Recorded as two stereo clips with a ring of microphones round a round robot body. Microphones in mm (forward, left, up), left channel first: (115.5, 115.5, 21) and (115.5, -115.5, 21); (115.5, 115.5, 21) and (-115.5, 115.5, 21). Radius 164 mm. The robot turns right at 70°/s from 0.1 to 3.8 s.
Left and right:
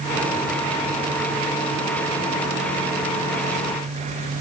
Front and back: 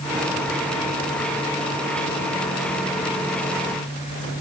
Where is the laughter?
I don't hear laughter.